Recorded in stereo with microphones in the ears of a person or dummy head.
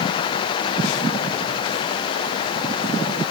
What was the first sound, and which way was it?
Only background noise.